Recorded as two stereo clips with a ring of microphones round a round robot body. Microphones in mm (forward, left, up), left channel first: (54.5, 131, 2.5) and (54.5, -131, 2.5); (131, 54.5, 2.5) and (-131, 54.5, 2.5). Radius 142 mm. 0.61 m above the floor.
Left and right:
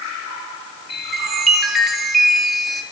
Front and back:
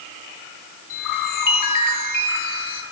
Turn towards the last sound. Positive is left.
turn(degrees=0)